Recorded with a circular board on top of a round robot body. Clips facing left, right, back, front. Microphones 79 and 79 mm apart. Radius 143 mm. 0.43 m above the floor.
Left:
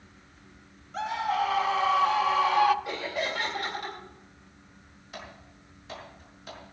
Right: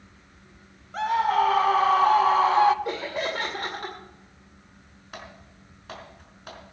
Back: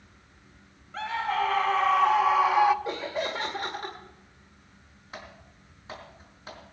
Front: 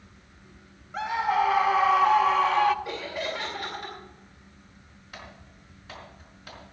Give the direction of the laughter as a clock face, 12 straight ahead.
4 o'clock.